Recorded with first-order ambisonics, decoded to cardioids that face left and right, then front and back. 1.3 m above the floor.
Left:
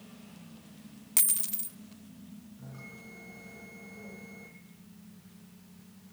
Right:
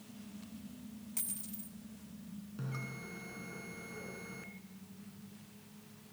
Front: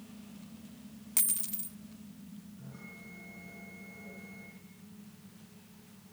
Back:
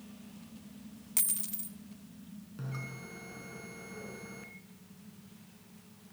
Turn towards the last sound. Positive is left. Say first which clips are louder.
# right 4 dB, back 8 dB
turn(degrees=-135)